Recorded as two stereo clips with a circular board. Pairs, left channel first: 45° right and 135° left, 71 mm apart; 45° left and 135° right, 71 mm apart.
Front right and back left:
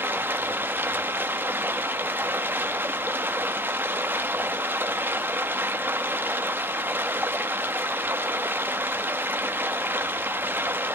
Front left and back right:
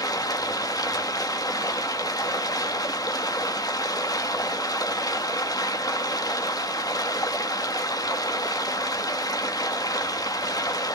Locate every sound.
0.0 s running water: 75° left, 1.3 m